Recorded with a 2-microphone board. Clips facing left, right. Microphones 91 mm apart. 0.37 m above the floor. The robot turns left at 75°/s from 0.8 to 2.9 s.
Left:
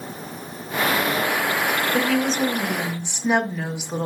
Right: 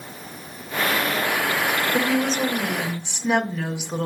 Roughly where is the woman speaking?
Right.